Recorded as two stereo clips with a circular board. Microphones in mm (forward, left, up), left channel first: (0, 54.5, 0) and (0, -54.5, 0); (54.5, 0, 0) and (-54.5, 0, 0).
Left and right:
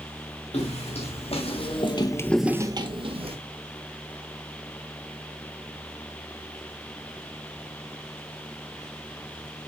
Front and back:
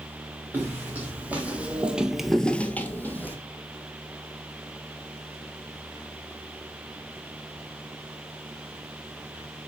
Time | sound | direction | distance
0.5 | footsteps | 105° left | 3 m